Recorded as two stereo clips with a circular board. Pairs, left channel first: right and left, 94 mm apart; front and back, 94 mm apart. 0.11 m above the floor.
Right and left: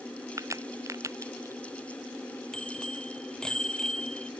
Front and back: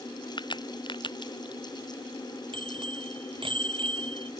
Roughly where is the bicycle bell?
Behind.